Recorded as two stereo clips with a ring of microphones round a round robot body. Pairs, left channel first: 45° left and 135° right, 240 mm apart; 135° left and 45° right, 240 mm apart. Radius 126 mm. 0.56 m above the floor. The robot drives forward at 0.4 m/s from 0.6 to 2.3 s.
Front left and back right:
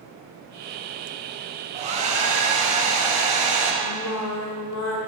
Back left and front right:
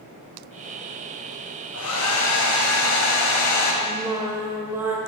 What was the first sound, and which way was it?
A hair dryer, 160° left.